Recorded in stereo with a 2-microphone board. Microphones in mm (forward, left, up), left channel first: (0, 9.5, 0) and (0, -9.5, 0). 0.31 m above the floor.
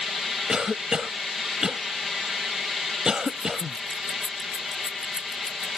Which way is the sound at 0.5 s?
35° right (ahead or behind).